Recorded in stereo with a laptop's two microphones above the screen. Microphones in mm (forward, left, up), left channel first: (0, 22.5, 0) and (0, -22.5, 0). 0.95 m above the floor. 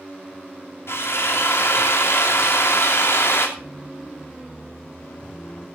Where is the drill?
75° left (ahead or behind), 3 m.